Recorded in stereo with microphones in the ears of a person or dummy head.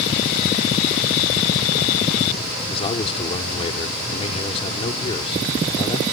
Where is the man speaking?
30° left (ahead or behind).